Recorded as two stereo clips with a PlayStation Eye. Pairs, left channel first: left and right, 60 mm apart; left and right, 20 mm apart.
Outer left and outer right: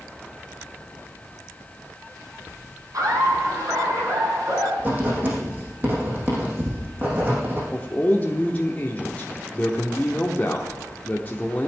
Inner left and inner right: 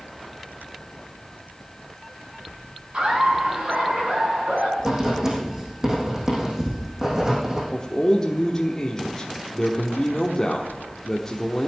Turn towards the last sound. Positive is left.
turn(degrees=25)  # may be behind; listen again after turning